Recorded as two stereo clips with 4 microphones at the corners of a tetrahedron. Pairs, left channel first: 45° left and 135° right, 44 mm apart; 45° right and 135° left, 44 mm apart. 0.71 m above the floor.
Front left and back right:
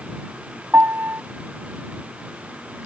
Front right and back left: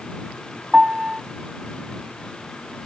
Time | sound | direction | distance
0.7 | a piano | 155° right | ?